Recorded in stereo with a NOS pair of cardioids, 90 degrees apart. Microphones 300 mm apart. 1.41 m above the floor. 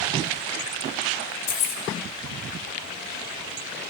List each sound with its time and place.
1.5 s keys jangling: 70° left, 3 m